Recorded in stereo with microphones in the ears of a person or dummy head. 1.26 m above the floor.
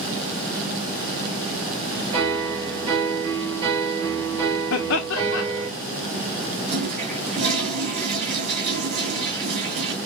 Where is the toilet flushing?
70° right (ahead or behind), 2.5 m.